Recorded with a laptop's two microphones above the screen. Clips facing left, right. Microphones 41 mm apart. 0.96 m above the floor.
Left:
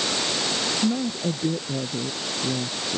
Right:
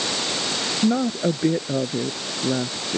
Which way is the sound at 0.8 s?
90° right.